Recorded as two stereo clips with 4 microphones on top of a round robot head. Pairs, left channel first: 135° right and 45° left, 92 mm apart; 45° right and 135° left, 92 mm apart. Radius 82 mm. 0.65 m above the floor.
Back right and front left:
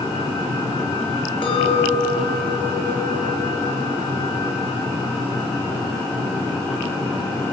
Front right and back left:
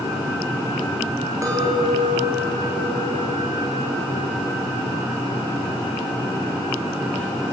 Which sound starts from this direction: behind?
A clink, at 1.4 s.